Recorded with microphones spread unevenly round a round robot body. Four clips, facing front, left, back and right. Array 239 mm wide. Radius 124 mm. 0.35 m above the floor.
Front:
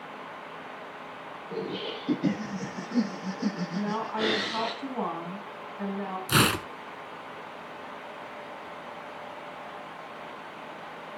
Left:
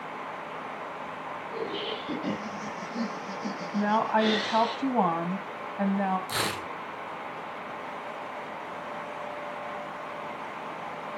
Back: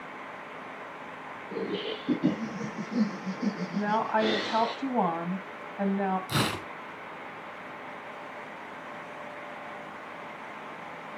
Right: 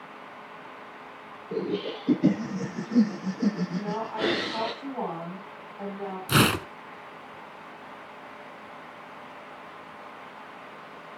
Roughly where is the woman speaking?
Behind left.